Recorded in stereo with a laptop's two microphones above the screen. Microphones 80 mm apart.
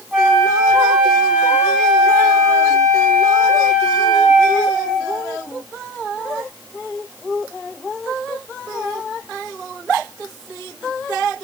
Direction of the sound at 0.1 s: 5° right (ahead or behind).